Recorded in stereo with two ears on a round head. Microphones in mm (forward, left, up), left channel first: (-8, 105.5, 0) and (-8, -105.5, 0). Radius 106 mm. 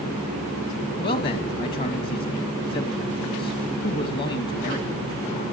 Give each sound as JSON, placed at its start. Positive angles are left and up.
{"t": 1.0, "sound": "a man speaking", "side_deg": 45, "distance_m": 2.0}